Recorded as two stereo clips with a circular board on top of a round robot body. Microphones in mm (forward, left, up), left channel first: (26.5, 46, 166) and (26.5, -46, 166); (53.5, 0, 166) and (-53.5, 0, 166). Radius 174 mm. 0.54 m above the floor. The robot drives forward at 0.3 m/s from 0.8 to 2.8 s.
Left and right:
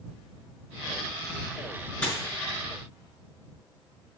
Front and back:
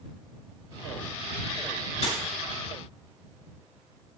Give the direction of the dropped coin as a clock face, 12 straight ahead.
11 o'clock.